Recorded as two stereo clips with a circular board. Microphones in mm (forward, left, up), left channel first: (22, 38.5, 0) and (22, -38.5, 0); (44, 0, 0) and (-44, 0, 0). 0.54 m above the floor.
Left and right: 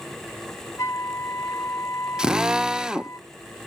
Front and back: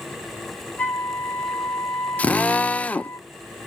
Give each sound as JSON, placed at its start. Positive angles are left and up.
{"t": 0.8, "sound": "a flute", "azimuth_deg": 65, "distance_m": 1.4}
{"t": 2.2, "sound": "a drill", "azimuth_deg": -30, "distance_m": 0.7}